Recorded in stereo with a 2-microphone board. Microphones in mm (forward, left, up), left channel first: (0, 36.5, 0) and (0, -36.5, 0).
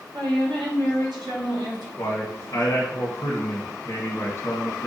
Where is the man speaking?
55° left (ahead or behind), 1.2 m.